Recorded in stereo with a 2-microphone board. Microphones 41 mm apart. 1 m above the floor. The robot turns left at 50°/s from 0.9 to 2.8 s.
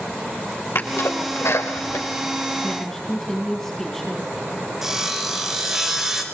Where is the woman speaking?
20° left (ahead or behind), 8 m; by 4.3 s 10° left (ahead or behind), 8 m.